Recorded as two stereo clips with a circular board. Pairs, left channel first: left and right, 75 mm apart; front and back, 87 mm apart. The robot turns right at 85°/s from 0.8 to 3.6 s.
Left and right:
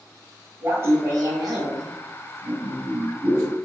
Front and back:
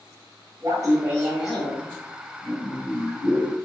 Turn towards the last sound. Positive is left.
turn(degrees=95)